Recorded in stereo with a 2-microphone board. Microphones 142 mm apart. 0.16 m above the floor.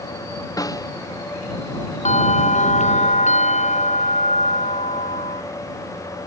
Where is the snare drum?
25° left (ahead or behind).